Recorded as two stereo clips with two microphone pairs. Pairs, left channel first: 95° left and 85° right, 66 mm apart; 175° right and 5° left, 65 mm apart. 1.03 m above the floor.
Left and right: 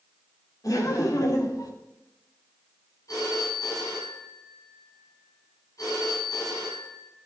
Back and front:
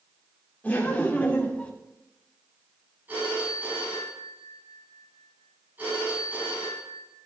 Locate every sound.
0.6 s laughter: 120° left, 3 m; by 1.7 s 115° left, 2.0 m
3.1 s a phone ringing: 65° left, 6.5 m